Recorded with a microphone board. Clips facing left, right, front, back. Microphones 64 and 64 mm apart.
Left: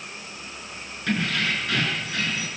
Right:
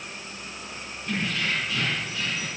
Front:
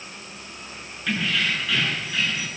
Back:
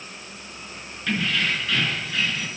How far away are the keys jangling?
About 7.5 m.